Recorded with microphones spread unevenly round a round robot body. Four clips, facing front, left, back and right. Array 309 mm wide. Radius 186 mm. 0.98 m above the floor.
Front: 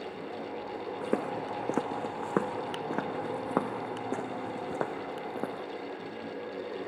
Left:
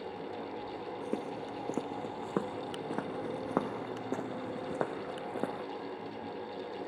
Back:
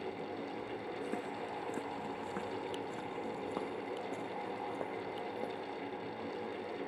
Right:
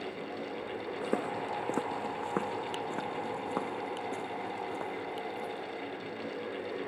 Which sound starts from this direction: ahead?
Footsteps, at 1.0 s.